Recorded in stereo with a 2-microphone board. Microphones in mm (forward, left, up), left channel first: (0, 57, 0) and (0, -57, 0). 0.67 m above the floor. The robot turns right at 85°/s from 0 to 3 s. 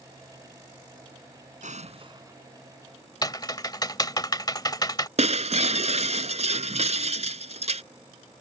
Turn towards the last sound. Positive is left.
turn(degrees=-65)  # may be behind; listen again after turning